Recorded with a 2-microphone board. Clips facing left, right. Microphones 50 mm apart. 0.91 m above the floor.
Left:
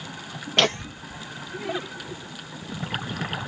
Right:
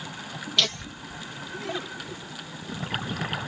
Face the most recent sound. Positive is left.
turn(degrees=10)  # may be behind; listen again after turning